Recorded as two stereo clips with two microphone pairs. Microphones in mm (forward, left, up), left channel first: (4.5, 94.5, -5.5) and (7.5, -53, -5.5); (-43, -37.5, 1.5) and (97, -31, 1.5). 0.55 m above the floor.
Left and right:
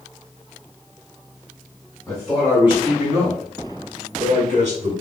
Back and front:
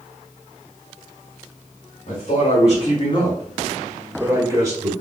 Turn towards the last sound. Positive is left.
turn(degrees=-55)